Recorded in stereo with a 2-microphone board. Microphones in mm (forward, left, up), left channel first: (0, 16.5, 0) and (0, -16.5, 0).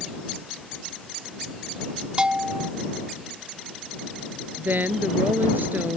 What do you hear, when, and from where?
2.2 s a bell: 30° right (ahead or behind)
4.6 s a woman speaking: 80° right